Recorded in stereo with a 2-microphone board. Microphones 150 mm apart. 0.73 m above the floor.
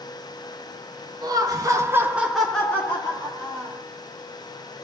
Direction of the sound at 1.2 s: 25° right (ahead or behind).